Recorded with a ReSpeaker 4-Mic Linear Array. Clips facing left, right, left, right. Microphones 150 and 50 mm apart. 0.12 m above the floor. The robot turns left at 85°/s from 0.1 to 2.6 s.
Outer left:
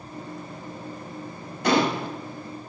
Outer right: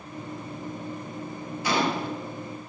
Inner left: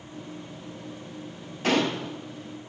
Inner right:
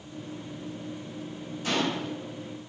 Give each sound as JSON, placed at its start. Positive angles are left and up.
{"t": 1.6, "sound": "a gunshot", "azimuth_deg": 105, "distance_m": 0.6}